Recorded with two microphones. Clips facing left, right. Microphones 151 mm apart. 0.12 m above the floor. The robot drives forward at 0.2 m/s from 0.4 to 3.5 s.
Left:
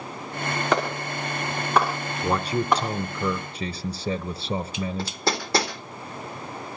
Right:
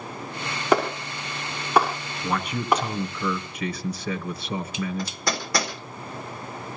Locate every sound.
0.7 s a clap: 10° right (ahead or behind), 6.5 m
2.2 s a man speaking: 35° left (ahead or behind), 1.2 m; by 5.2 s 30° left (ahead or behind), 1.3 m
5.0 s hammering: 30° left (ahead or behind), 4 m